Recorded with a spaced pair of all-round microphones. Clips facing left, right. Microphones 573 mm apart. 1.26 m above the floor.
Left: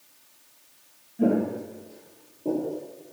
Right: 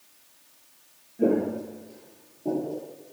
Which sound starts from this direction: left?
Footsteps, at 1.2 s.